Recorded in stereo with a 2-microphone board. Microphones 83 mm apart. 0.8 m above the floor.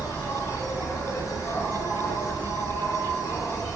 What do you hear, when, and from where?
0.0 s an insect: 45° left (ahead or behind), 0.8 m